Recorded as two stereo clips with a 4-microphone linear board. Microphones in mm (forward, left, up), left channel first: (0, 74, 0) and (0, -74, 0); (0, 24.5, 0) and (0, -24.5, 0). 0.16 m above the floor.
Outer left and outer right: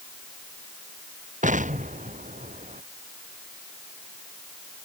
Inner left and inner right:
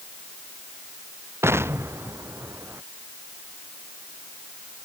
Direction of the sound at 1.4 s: 55° right (ahead or behind).